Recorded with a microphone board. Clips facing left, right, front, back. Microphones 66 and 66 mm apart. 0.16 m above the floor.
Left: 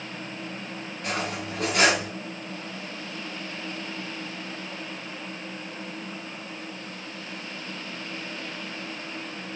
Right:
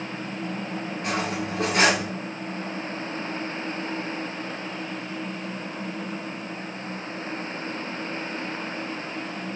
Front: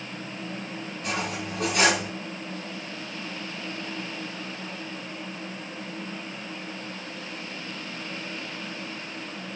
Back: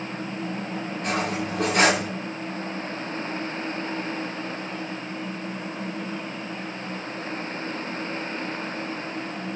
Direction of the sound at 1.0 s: 145° right.